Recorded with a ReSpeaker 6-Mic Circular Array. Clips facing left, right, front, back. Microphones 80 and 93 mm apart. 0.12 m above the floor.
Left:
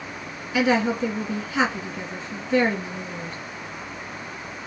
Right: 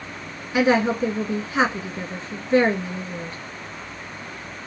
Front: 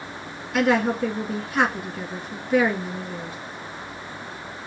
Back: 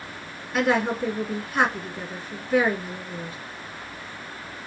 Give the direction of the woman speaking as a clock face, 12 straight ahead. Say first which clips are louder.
Right 2 dB, front 2 dB; 3 o'clock.